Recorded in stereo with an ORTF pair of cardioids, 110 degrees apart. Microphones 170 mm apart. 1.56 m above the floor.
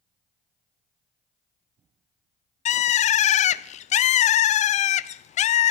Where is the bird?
45° left, 0.5 m.